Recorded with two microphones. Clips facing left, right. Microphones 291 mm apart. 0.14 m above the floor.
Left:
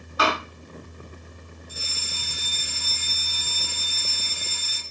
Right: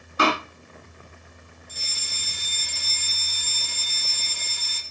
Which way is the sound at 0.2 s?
30° right (ahead or behind).